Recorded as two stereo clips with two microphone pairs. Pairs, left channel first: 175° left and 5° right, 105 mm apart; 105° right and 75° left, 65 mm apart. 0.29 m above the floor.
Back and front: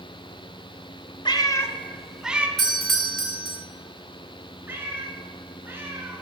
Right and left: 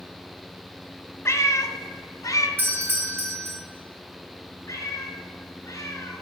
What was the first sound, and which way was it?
A cat meowing, 145° right.